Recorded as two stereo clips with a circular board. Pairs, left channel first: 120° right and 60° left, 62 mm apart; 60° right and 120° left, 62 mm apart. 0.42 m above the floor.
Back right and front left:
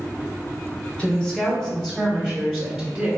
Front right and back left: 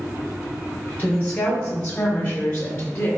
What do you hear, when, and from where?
1.0 s a woman speaking: 75° right, 1.1 m; by 3.1 s straight ahead, 1.6 m